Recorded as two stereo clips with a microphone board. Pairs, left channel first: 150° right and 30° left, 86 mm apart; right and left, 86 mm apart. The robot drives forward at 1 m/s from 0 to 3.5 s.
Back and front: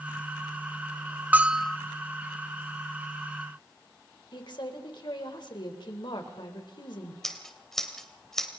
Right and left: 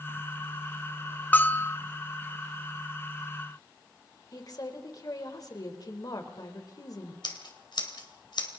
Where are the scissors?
65° right, 3 m.